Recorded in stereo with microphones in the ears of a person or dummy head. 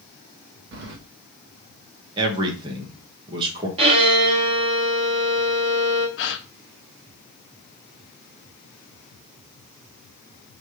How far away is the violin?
About 1.4 m.